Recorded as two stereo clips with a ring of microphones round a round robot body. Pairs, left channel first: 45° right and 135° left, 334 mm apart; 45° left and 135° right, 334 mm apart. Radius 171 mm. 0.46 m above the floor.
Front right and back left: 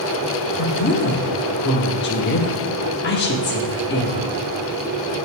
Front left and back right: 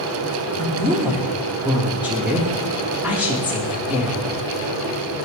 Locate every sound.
0.6 s a woman speaking: 55° right, 1.1 m